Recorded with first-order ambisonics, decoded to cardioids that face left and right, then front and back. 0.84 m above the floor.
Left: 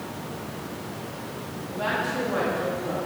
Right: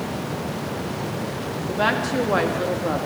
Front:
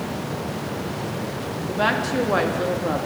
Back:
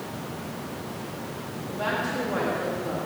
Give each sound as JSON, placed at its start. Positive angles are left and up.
{"t": 1.7, "sound": "a woman speaking", "azimuth_deg": -45, "distance_m": 1.5}